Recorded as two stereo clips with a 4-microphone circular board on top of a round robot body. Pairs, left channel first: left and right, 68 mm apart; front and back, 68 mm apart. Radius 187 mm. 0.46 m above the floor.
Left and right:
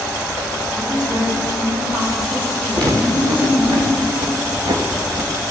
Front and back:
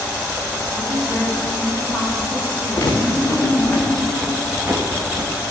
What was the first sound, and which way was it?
A woman speaking, 90° right.